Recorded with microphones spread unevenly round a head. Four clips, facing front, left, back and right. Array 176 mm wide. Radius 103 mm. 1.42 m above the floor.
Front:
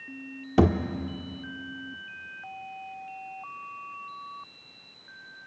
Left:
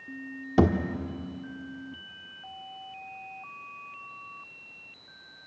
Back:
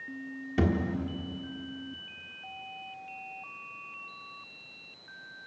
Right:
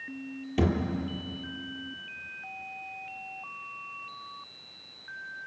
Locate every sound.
0.6 s a thud: 65° left, 1.0 m